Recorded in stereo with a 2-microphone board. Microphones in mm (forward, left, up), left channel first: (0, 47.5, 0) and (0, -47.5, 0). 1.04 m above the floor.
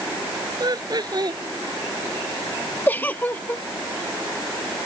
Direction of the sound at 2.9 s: 20° left (ahead or behind).